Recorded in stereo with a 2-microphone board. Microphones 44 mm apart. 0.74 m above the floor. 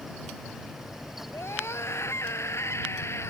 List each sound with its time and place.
1.3 s a scream: 80° left; by 3.3 s 75° left (ahead or behind)